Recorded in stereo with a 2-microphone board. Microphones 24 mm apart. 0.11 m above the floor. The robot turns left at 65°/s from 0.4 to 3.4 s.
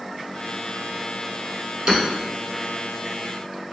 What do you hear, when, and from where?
1.9 s hammering: 25° right (ahead or behind), 1.5 m; by 2.0 s 30° right (ahead or behind), 1.5 m